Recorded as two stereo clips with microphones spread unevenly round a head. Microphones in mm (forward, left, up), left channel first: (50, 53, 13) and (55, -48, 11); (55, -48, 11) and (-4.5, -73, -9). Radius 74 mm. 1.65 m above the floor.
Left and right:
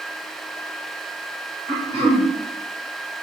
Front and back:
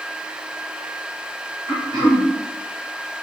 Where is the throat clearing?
135° right, 1.2 m.